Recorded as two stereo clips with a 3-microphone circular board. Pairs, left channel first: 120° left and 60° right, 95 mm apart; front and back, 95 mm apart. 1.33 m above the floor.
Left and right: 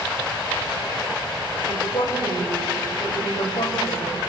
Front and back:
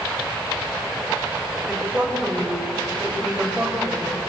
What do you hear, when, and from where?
1.7 s a woman speaking: 105° left, 7 m